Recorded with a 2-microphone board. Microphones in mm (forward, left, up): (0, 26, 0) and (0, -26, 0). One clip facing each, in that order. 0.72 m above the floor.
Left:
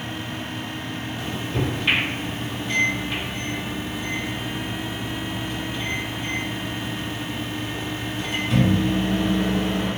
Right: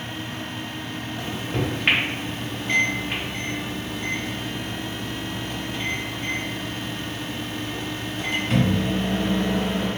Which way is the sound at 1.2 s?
45° right (ahead or behind).